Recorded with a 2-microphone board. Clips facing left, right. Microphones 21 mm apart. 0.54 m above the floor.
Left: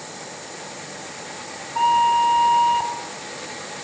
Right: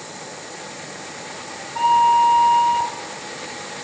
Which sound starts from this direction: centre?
A flute, at 1.8 s.